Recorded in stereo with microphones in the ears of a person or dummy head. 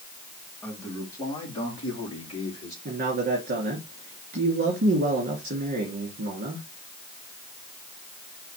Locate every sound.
0.6 s a man speaking: 15° left (ahead or behind), 3.5 m; by 2.8 s 45° left (ahead or behind), 4 m
2.9 s a man speaking: 45° right (ahead or behind), 2.5 m